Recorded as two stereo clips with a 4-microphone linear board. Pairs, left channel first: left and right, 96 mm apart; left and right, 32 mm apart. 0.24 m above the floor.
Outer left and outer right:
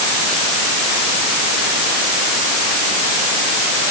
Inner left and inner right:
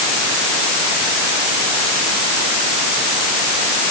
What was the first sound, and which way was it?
Only background noise.